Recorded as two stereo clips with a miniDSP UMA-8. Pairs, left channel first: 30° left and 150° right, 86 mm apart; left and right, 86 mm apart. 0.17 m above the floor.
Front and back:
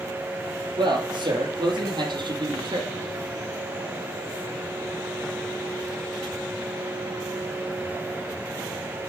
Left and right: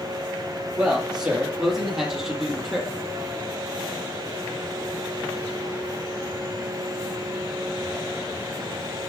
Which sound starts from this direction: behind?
A man speaking, at 0.8 s.